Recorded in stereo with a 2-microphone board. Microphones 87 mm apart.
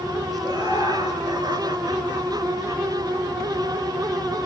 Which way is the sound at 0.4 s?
50° right (ahead or behind).